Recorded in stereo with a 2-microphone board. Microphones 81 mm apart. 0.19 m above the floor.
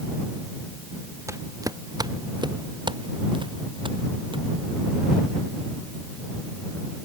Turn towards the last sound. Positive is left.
turn(degrees=-85)